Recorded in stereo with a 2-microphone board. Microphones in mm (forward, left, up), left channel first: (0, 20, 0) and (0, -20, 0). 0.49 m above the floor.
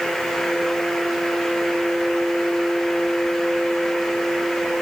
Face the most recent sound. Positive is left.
No sound to turn to.